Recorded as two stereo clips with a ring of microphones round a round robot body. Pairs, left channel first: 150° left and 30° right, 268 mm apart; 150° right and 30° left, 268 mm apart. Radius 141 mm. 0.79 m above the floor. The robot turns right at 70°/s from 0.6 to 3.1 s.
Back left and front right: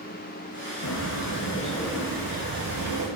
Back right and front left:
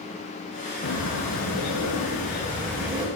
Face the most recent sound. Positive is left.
turn(degrees=-40)